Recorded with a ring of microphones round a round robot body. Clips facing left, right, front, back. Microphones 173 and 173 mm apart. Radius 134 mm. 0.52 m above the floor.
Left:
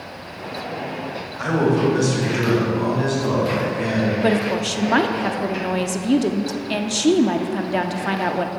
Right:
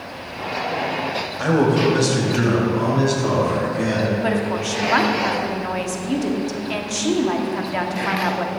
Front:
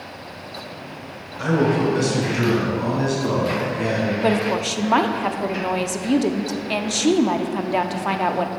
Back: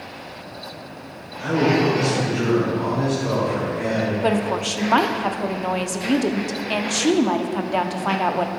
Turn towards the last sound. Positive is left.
turn(degrees=85)